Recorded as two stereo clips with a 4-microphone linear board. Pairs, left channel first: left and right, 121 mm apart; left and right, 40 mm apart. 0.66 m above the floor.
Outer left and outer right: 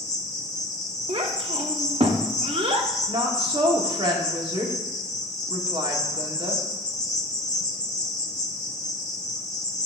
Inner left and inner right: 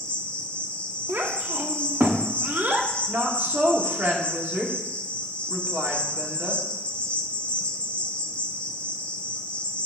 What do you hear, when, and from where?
0.0 s an insect: 30° left (ahead or behind), 1.3 m
1.1 s a child speaking: 50° right (ahead or behind), 1.0 m
3.1 s a woman speaking: 45° right (ahead or behind), 1.5 m